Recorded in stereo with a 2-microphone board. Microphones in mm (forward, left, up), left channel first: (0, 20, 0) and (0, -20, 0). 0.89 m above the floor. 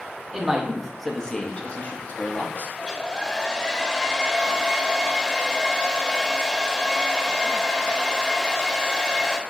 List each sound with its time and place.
0.3 s a man speaking: 20° right (ahead or behind), 0.9 m; by 2.7 s 55° left (ahead or behind), 1.1 m
2.8 s a hair dryer: 15° left (ahead or behind), 0.6 m